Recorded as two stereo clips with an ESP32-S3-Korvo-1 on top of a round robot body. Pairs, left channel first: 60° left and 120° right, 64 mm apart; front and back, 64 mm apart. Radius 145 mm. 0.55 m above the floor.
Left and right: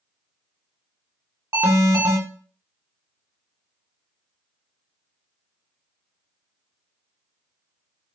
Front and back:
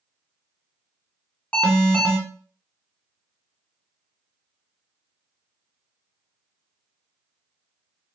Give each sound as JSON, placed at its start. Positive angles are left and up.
{"t": 1.5, "sound": "an alarm", "azimuth_deg": -75, "distance_m": 1.6}